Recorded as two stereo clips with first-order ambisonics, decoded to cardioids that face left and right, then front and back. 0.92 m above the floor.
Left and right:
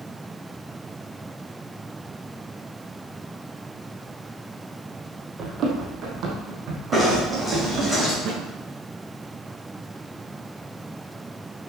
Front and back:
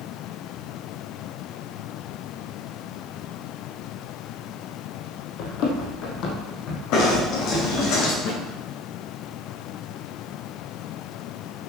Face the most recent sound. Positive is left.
turn(degrees=-30)